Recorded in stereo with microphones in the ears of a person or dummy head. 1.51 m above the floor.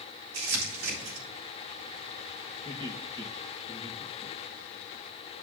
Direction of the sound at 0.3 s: 85° right.